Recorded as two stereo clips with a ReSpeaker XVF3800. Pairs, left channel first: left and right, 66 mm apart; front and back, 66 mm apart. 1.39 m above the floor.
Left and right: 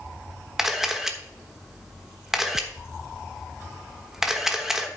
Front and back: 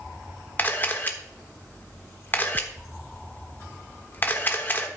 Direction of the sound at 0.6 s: 15° right.